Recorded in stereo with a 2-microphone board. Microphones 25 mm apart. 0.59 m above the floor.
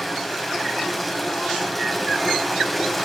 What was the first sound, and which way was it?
Running water, centre (ahead or behind).